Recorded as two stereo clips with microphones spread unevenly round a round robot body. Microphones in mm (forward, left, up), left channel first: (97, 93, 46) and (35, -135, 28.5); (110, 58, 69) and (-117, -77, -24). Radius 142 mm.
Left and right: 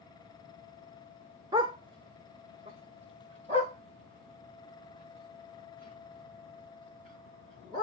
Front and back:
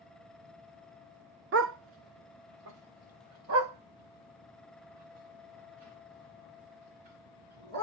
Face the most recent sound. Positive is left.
turn(degrees=-170)